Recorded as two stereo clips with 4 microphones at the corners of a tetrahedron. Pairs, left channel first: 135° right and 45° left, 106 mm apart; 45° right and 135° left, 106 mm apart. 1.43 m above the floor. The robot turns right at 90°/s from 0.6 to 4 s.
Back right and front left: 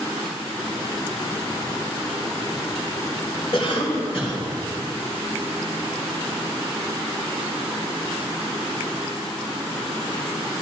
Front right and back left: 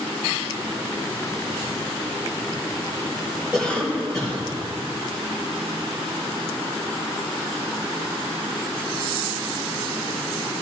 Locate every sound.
3.5 s a cough: 140° right, 3.5 m; by 4.4 s 100° right, 3.5 m